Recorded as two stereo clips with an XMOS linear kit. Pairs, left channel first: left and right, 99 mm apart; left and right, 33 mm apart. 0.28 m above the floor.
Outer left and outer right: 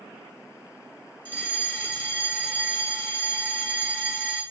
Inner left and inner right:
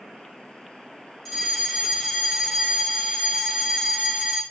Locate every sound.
1.2 s a fire alarm: 15° left (ahead or behind), 1.9 m